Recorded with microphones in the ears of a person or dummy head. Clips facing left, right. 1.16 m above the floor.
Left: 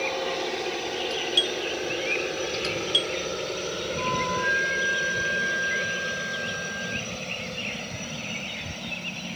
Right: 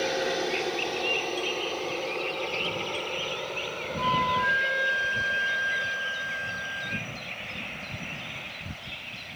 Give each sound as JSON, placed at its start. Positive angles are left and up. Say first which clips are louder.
{"t": 0.0, "sound": "a helicopter", "louder": "right 1 dB", "side_deg": -10}
{"t": 1.1, "sound": "a doorbell", "louder": "left 1 dB", "side_deg": 85}
{"t": 4.0, "sound": "a flute", "louder": "right 2 dB", "side_deg": -55}